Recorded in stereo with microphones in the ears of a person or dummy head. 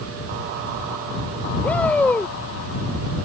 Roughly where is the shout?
Centre.